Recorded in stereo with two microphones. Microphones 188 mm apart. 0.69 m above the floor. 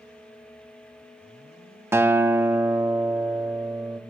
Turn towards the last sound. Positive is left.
turn(degrees=-15)  # may be behind; listen again after turning